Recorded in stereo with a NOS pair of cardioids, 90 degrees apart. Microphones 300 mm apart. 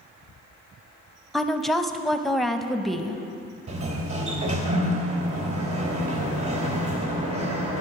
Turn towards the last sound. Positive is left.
turn(degrees=-65)